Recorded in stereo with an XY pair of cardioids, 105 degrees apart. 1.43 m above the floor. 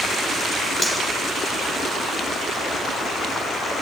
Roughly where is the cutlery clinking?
Ahead.